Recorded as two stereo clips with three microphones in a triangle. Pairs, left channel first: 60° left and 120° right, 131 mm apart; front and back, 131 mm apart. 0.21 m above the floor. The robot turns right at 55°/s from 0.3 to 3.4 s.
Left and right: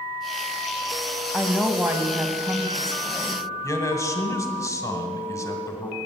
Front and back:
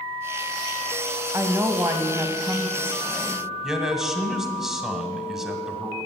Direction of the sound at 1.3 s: 145° left.